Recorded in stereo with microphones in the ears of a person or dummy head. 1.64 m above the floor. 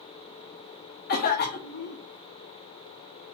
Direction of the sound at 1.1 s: 55° left (ahead or behind).